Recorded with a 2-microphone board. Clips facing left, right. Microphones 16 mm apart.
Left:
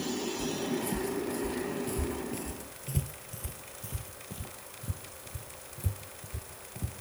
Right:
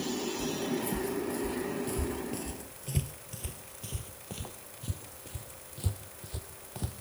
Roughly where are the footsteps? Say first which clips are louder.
Even; left.